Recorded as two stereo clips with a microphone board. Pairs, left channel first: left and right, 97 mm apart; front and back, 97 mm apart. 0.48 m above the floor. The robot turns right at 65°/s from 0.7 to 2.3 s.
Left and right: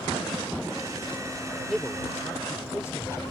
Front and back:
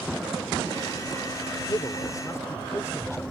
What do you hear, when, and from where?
1.7 s a man speaking: 5° left; by 3.2 s 45° left